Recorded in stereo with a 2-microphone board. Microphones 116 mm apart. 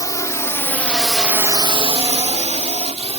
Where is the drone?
30° left (ahead or behind); by 3.2 s 65° right (ahead or behind).